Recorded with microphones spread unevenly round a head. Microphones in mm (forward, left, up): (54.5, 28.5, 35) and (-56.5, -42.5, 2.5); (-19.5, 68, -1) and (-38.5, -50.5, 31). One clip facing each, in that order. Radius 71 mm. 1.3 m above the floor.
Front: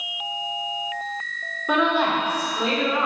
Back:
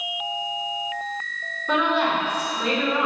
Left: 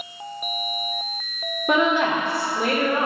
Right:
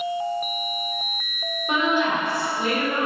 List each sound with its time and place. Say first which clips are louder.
1.7 s a woman speaking: front 1 dB, left 3 dB; 110° left, 1.8 m